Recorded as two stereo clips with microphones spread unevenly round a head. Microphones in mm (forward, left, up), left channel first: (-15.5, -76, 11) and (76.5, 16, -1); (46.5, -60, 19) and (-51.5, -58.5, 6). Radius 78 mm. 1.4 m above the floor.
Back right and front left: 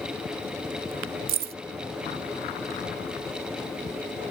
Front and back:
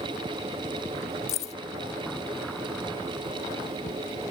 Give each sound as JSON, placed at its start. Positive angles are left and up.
{"t": 1.3, "sound": "keys jangling", "azimuth_deg": 35}